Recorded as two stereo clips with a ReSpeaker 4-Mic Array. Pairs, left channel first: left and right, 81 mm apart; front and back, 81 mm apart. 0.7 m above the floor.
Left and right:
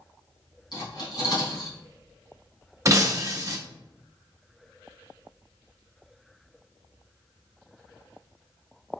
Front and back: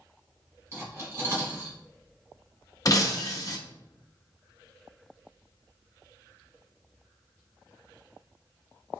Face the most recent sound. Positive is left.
turn(degrees=-40)